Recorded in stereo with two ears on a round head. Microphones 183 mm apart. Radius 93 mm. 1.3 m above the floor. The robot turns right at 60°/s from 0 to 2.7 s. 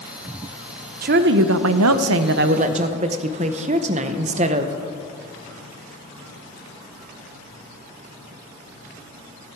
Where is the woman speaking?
135° right, 0.6 m; by 4.7 s 35° right, 0.6 m.